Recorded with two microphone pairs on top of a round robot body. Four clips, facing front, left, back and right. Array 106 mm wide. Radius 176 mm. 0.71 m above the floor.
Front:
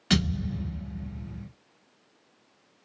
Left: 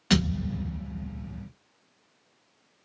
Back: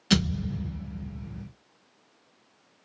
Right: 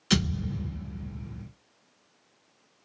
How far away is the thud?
About 0.6 m.